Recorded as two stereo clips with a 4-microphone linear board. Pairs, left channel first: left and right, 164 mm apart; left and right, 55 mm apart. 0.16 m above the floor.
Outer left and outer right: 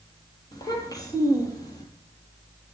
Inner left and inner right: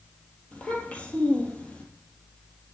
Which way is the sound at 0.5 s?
25° left (ahead or behind).